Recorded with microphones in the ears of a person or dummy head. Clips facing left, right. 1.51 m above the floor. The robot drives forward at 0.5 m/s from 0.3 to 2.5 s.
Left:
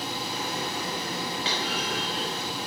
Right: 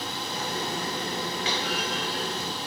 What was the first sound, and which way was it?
A clunk, 40° left (ahead or behind).